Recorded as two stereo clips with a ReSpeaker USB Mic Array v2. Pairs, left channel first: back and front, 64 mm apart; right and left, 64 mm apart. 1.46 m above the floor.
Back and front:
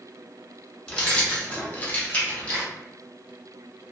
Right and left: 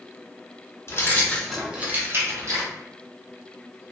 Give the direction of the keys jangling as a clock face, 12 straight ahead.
4 o'clock.